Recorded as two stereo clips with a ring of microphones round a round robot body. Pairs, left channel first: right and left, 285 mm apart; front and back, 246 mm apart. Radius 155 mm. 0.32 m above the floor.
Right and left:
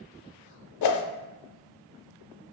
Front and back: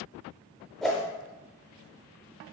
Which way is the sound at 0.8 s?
90° right.